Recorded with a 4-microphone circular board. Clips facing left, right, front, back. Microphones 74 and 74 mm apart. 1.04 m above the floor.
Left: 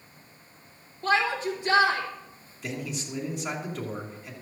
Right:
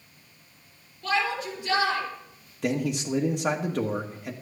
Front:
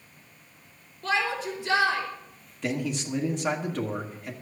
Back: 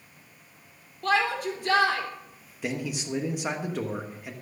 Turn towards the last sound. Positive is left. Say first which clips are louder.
# right 8 dB, front 2 dB
turn(degrees=-100)